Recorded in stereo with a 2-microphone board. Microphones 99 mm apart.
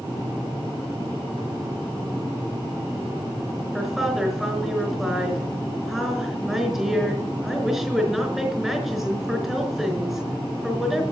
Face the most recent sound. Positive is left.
turn(degrees=0)  # may be behind; listen again after turning